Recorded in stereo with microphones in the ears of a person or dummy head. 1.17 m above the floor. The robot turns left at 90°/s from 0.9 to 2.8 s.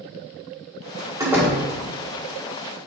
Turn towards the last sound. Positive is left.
turn(degrees=60)